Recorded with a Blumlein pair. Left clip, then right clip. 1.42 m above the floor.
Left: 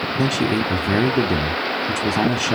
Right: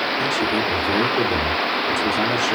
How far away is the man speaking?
About 0.7 m.